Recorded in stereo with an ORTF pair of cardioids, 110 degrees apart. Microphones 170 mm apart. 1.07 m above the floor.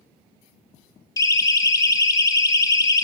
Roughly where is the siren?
Ahead.